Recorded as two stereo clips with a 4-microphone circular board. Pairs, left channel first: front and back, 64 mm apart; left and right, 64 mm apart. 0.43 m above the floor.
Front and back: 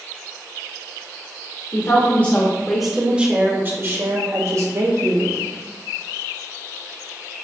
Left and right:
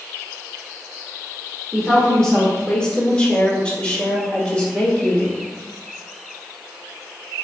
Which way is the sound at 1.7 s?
5° left.